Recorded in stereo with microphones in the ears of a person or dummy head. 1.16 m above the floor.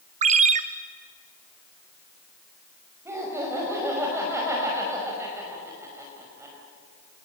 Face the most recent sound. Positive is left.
turn(degrees=-10)  # may be behind; listen again after turning